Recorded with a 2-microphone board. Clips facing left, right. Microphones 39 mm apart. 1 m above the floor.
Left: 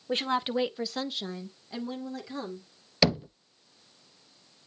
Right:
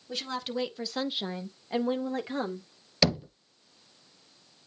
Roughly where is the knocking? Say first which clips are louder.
Left 1 dB; centre.